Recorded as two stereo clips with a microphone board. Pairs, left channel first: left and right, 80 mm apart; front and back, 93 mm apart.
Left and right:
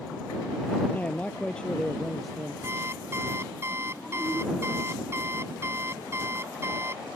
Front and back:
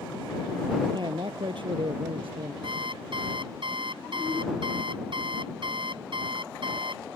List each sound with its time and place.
0.9 s a man speaking: 155° left; by 2.5 s straight behind
2.6 s an alarm clock: 150° right